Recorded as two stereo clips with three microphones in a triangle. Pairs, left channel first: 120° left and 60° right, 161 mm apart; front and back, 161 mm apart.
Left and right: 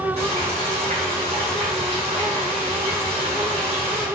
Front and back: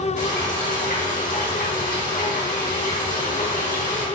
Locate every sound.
0.2 s frying: 15° right, 3.5 m